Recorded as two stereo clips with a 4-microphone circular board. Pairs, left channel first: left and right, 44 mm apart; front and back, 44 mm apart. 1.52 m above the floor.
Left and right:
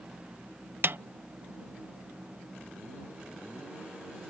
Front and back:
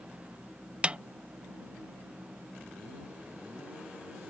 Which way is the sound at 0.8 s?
120° right.